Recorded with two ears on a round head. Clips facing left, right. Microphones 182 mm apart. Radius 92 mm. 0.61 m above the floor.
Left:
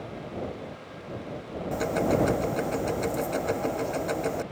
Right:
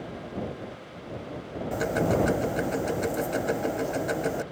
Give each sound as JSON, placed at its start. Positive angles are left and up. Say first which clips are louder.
{"t": 1.7, "sound": "ticking", "louder": "even", "side_deg": -5}